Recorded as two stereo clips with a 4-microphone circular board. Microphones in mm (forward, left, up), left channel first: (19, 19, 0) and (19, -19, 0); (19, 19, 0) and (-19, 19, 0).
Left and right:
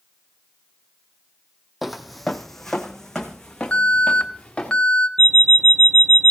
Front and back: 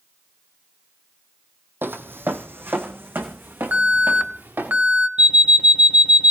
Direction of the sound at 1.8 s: 175° right.